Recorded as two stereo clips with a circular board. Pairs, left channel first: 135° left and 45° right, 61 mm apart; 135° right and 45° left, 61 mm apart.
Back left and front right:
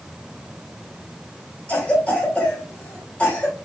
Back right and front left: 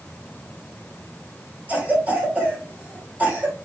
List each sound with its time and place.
1.7 s a cough: 90° left, 1.7 m